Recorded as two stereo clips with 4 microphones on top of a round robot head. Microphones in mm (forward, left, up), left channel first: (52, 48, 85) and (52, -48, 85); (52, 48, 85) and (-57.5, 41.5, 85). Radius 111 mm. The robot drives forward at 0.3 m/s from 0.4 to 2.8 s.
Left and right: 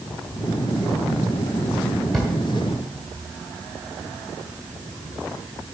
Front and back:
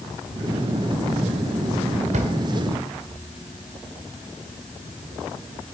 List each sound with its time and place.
2.1 s a drawer: straight behind, 1.6 m